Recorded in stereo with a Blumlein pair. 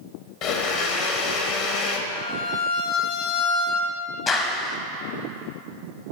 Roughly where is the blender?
Ahead left.